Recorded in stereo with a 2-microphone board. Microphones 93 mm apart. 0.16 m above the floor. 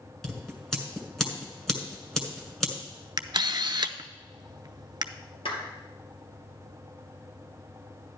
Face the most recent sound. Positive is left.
turn(degrees=70)  # may be behind; listen again after turning